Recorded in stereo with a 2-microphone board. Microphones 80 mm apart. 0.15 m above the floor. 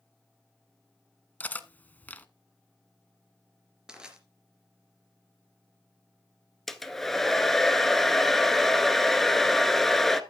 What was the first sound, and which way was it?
Cutlery clinking, 20° left (ahead or behind).